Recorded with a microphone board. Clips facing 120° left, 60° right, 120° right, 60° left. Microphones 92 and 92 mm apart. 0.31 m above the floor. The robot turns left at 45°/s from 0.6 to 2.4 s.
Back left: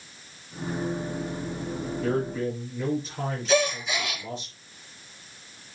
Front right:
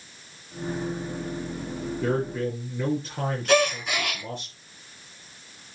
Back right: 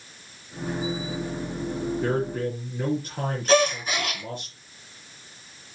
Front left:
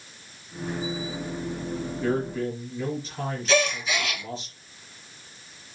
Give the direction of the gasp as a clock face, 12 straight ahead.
3 o'clock.